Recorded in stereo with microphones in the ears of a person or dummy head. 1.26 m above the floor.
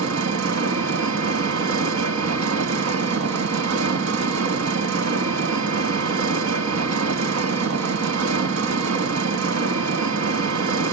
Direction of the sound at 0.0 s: 80° right.